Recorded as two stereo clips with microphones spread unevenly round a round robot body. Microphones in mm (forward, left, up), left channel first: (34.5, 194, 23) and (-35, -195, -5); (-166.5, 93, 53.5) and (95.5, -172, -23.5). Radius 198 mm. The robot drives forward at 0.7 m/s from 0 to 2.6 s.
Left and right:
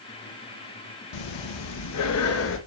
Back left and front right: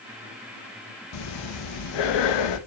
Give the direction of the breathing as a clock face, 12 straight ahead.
9 o'clock.